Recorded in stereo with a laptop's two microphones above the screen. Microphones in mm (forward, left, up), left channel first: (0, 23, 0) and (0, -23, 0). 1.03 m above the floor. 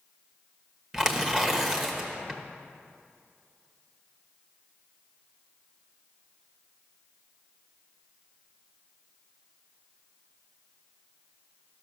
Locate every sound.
0.9 s tearing paper: 10° right (ahead or behind), 1.2 m